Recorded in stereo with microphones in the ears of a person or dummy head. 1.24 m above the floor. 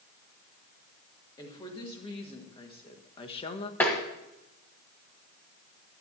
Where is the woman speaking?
25° left (ahead or behind), 2.5 m; by 3.7 s 35° left (ahead or behind), 1.0 m.